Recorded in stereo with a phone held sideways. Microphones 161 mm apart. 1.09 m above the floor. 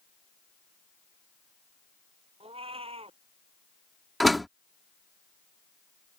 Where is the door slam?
Centre (ahead or behind).